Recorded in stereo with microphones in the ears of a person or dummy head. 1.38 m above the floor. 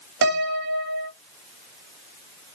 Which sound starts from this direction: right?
A piano, at 0.2 s.